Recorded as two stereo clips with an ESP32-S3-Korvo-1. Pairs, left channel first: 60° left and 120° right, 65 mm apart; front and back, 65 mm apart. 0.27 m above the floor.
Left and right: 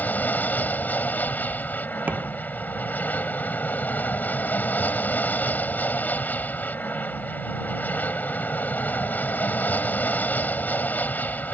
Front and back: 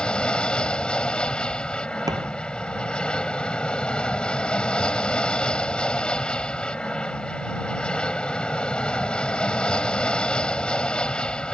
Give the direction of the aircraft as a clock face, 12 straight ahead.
10 o'clock.